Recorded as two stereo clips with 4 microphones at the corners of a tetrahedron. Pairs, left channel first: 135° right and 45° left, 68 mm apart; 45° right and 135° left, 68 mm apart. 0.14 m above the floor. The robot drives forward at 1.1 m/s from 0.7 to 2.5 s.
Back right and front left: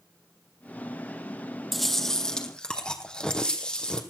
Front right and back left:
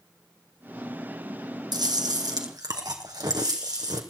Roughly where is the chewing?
Behind left.